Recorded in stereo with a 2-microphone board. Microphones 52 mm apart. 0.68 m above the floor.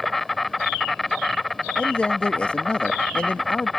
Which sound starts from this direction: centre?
An insect, at 0.0 s.